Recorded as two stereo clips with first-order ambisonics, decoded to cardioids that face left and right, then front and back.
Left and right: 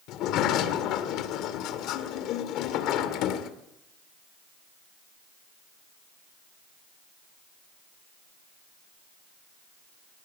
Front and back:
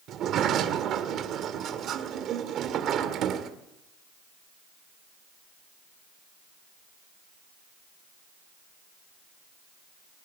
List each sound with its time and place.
0.1 s a sliding door: 130° left, 1.9 m